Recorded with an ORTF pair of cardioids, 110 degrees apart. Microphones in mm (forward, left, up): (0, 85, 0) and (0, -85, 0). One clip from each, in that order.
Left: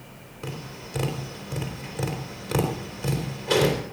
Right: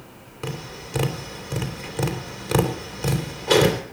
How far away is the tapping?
About 3.5 m.